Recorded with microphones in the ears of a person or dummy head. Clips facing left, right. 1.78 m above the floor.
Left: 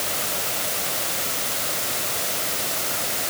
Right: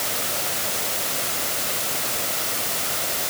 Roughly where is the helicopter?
I don't hear a helicopter.